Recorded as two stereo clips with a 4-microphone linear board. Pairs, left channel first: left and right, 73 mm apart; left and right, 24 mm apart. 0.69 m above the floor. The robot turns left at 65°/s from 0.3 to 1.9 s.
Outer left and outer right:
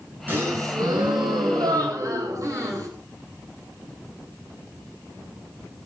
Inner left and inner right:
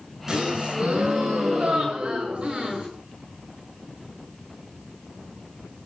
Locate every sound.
0.3 s a gasp: 25° right, 9.5 m; by 2.9 s 130° right, 9.5 m